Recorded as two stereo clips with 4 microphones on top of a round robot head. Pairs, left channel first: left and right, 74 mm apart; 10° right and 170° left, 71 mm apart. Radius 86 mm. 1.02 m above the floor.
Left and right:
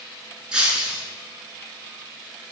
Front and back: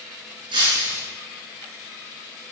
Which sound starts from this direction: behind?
Breaking glass, at 0.5 s.